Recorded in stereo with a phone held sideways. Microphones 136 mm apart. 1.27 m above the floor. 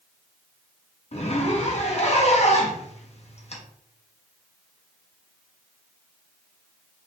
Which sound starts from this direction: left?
A zipper, at 1.1 s.